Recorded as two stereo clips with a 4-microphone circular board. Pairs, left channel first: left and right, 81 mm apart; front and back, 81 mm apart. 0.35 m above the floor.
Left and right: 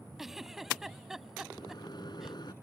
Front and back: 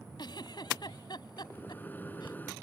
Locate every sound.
0.2 s a giggle: 5° right
1.5 s a microwave: 65° left